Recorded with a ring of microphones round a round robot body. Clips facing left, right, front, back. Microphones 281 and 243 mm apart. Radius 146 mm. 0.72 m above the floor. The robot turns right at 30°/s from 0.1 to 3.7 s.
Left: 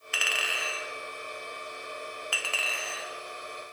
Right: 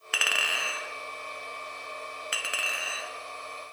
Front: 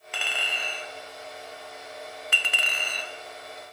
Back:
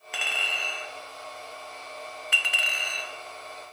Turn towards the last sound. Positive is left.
turn(degrees=15)